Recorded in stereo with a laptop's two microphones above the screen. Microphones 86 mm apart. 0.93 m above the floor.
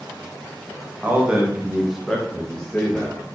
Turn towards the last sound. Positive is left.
turn(degrees=20)  # may be behind; listen again after turning